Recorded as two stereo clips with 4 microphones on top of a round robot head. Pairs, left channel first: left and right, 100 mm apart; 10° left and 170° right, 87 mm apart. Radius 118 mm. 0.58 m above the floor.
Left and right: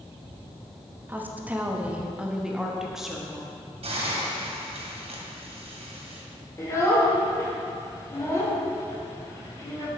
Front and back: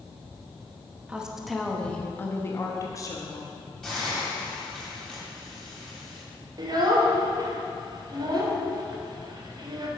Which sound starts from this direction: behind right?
A woman speaking, at 1.1 s.